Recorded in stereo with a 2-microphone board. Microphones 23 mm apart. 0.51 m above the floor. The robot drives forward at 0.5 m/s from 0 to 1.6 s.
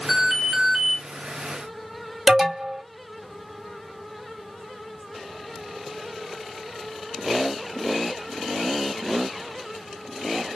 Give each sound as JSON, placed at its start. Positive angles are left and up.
{"t": 0.1, "sound": "an alarm", "side_deg": -20, "distance_m": 1.1}
{"t": 2.3, "sound": "an alarm", "side_deg": -15, "distance_m": 1.2}